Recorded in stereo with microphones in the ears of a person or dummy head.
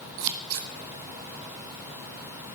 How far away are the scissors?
About 1.6 m.